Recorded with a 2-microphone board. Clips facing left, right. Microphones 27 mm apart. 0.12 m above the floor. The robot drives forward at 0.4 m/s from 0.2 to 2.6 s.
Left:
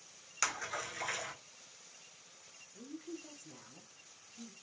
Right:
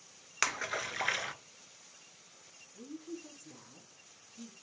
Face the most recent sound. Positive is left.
turn(degrees=10)  # may be behind; listen again after turning